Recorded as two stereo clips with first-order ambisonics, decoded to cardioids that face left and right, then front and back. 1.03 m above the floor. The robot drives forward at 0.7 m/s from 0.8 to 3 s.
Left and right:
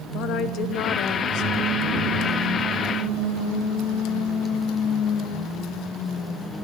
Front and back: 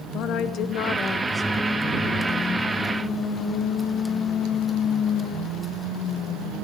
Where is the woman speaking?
45° left, 0.7 m; by 1.5 s 100° left, 0.5 m.